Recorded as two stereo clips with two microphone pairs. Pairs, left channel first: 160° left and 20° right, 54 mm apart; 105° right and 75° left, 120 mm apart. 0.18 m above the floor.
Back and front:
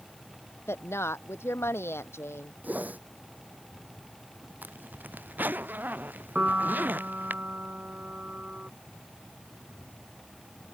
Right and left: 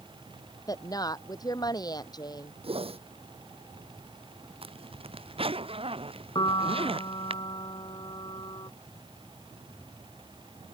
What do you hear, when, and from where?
0.7 s a woman speaking: 160° right
2.6 s a whoosh: 40° left
4.6 s a zipper: 35° left
6.3 s a piano: 70° right